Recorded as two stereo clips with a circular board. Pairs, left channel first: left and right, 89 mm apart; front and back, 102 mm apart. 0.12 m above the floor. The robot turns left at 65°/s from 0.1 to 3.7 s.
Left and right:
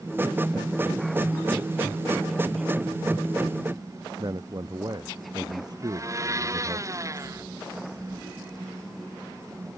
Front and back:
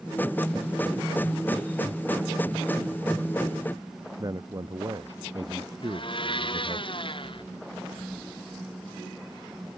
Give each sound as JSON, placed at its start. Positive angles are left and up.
{"t": 4.2, "sound": "a man speaking", "azimuth_deg": -130}
{"t": 5.8, "sound": "a blender", "azimuth_deg": -35}